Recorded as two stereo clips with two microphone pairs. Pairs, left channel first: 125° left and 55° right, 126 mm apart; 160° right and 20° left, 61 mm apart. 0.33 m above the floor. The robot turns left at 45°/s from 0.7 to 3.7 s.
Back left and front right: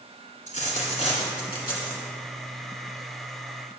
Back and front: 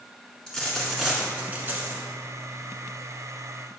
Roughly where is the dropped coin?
Behind left.